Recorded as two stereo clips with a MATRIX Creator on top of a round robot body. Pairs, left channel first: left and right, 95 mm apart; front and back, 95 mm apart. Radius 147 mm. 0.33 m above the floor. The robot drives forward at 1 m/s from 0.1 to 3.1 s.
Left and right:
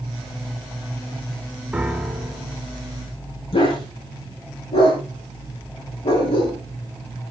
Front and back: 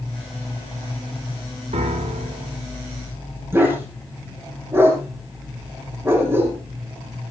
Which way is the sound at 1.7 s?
170° right.